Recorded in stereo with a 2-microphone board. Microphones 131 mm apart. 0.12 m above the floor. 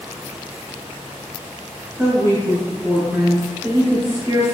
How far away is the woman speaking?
About 1.2 m.